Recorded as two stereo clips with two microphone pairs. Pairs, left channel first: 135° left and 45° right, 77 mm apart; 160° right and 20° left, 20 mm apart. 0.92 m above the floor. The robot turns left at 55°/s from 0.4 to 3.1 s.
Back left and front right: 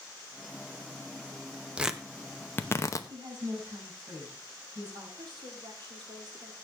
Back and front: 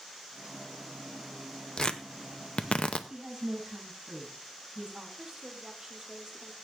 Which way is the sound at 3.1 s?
10° right.